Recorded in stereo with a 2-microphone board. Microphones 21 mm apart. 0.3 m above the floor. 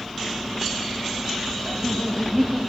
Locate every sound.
1.6 s laughter: 15° right (ahead or behind), 2.0 m